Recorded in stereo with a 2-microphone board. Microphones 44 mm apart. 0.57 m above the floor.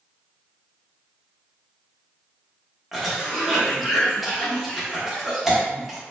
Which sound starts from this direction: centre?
A cough, at 2.9 s.